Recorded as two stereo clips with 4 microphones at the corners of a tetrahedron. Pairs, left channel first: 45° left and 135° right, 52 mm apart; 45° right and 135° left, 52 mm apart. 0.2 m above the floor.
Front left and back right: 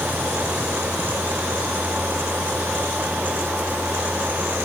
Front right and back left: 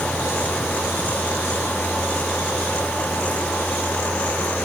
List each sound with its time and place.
Only background noise.